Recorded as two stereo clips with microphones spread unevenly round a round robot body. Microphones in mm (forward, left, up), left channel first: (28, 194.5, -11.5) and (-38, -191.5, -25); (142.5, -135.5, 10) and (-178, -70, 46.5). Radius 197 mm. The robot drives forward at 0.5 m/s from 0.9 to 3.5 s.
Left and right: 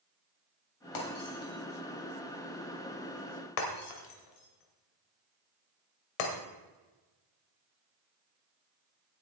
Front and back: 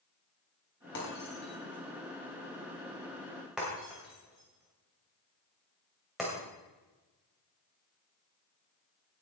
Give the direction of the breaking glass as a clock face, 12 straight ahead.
10 o'clock.